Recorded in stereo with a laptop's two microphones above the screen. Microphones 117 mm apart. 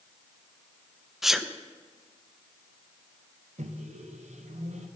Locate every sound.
1.2 s a sneeze: centre (ahead or behind), 0.5 m
3.6 s a microwave: 75° right (ahead or behind), 0.6 m